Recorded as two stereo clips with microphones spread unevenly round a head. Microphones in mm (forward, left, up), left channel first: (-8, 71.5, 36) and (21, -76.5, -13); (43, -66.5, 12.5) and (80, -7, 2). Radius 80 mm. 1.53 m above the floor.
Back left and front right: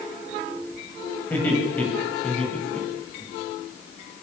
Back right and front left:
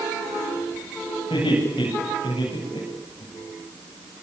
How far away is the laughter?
About 9.5 m.